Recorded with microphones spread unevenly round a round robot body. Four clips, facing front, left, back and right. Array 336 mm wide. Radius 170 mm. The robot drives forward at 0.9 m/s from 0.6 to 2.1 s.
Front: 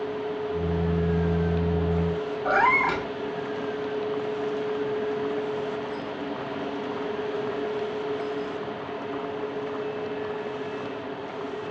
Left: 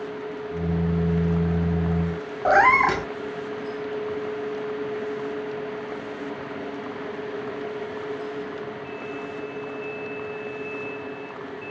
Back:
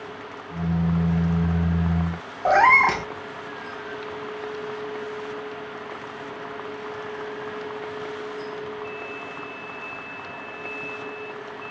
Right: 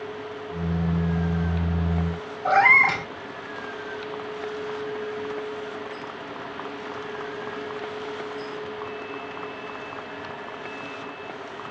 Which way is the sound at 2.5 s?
125° left.